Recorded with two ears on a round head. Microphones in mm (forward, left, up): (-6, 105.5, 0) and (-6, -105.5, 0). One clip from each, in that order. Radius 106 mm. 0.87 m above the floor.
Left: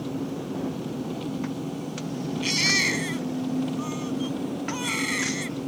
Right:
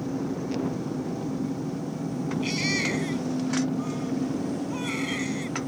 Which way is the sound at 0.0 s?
85° left.